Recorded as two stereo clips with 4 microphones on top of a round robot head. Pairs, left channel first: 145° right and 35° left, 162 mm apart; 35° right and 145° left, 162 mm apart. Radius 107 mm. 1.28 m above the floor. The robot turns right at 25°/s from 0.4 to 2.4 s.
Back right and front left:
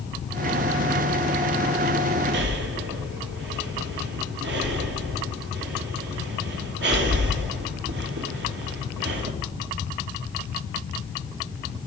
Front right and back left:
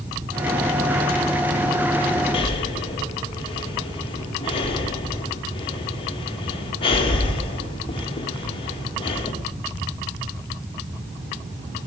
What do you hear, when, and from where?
2.3 s breathing: 25° left, 1.7 m